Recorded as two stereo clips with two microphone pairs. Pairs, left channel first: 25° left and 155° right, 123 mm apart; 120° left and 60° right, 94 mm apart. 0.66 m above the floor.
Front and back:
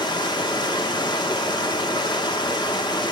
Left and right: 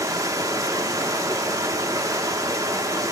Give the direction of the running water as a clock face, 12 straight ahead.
1 o'clock.